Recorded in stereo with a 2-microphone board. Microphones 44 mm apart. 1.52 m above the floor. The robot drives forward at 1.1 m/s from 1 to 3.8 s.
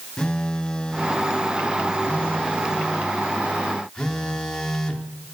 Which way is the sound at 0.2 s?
15° left (ahead or behind).